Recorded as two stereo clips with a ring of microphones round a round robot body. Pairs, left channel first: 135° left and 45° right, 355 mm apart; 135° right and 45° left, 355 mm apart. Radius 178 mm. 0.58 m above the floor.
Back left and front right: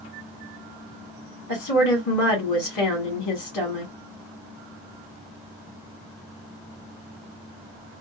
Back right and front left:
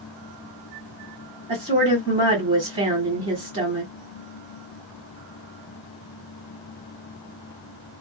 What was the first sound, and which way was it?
A woman speaking, 110° left.